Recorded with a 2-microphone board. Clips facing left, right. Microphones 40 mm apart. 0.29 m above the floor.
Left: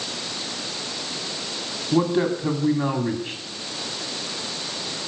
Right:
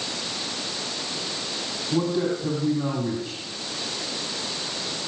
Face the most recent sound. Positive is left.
turn(degrees=40)  # may be behind; listen again after turning